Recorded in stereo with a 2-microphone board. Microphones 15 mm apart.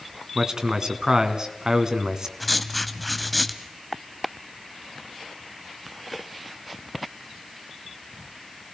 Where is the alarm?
No alarm in this recording.